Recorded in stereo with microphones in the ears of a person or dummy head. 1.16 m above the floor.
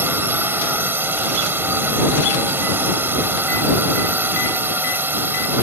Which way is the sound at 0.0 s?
10° right (ahead or behind).